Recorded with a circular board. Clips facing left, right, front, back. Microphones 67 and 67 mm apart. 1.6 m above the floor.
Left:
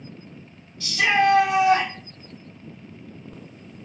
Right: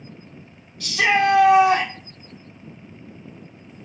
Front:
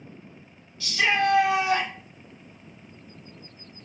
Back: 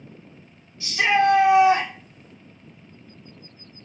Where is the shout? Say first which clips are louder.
Right 1 dB, back 4 dB; 115° right, 1.1 m.